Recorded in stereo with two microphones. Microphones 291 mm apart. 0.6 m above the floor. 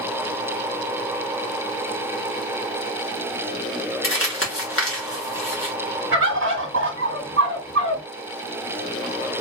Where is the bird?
45° right (ahead or behind), 1.6 m.